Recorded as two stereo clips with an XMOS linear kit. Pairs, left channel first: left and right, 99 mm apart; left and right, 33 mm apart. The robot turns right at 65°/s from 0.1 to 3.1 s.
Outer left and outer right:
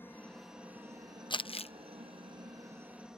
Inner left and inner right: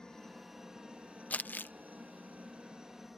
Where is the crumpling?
45° left (ahead or behind); by 1.7 s 70° left (ahead or behind).